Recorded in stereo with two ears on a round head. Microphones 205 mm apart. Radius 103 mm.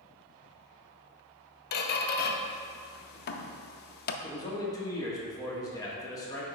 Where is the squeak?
45° left (ahead or behind), 0.5 m.